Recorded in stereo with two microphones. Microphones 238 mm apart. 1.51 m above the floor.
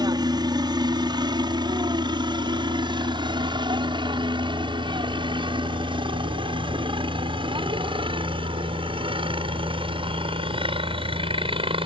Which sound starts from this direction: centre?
A helicopter, at 0.0 s.